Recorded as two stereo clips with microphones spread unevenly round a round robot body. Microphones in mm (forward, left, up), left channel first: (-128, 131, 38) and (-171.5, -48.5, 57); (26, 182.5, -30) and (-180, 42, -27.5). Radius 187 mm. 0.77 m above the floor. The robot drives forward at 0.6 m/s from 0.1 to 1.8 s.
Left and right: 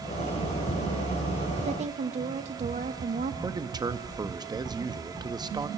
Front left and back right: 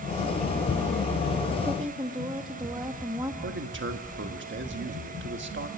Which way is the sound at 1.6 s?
70° right.